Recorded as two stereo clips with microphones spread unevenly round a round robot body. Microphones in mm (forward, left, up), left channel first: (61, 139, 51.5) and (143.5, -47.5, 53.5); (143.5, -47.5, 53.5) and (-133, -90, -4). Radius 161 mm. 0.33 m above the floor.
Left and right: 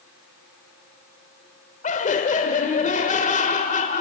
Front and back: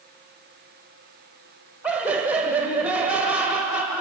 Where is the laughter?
120° left, 1.1 m.